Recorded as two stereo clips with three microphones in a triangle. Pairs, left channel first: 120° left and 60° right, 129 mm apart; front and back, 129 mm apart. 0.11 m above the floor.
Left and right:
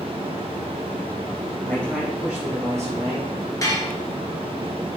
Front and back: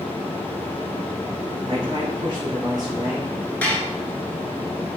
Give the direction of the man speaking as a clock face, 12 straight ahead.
6 o'clock.